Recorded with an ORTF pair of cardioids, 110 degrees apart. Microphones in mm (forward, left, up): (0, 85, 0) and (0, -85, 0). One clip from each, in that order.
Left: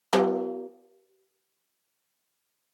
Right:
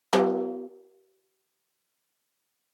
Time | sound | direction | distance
0.1 | a snare drum | 5° right | 0.8 m